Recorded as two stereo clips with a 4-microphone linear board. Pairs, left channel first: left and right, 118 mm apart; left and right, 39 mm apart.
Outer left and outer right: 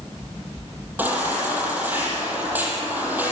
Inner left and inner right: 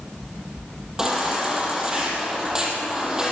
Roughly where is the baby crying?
Centre.